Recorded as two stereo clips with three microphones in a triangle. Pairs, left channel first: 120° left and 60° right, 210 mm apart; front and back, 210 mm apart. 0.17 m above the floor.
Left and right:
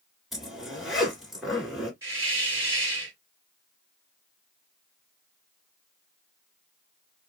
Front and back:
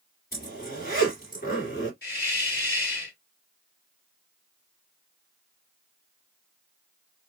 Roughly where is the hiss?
Ahead.